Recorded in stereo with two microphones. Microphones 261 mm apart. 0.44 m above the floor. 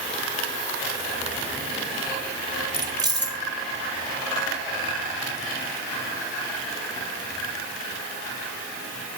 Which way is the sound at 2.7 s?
15° right (ahead or behind).